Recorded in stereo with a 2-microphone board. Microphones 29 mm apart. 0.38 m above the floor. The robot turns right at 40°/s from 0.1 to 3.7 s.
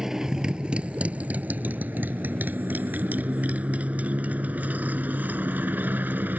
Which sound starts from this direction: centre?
A motorcycle, at 0.0 s.